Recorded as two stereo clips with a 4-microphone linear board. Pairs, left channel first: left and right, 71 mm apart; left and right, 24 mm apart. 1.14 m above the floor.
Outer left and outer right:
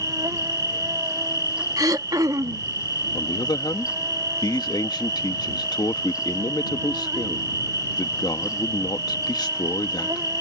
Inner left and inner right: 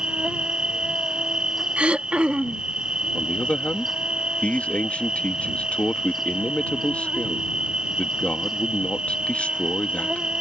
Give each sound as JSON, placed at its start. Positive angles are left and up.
{"t": 0.0, "sound": "an insect", "side_deg": -55}
{"t": 1.8, "sound": "throat clearing", "side_deg": -60}
{"t": 3.1, "sound": "a man speaking", "side_deg": 80}